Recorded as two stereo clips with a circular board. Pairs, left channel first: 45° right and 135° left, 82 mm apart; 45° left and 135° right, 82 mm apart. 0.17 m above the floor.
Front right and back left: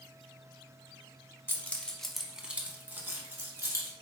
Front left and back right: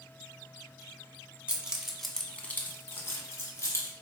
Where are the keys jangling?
80° right, 0.8 m; by 3.9 s 90° left, 1.5 m.